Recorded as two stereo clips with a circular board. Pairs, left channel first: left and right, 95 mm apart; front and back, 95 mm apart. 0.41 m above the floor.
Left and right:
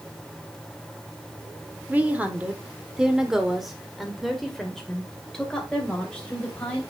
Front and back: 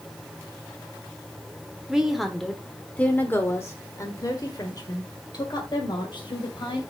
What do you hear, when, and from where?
1.9 s a woman speaking: 110° right, 1.4 m; by 6.8 s 15° left, 2.5 m